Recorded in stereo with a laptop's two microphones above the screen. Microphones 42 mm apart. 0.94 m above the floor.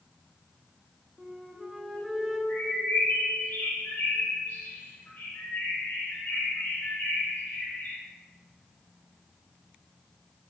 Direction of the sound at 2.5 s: 50° left (ahead or behind).